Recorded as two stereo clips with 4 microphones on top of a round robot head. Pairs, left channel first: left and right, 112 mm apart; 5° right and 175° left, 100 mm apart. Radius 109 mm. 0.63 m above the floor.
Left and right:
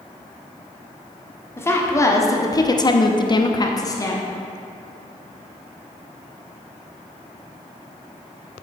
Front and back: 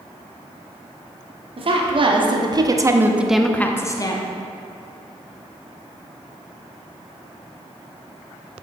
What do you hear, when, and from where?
1.6 s a woman speaking: 155° left, 1.8 m; by 4.2 s 30° left, 1.1 m